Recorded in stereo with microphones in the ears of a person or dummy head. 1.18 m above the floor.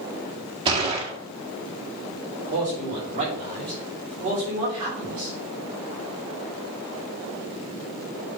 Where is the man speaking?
30° right (ahead or behind), 3.5 m.